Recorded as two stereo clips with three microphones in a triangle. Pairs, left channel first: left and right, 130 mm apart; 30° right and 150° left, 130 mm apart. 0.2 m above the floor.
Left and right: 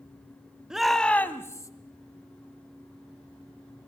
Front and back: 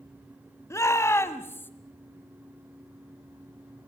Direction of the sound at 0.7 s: 15° right.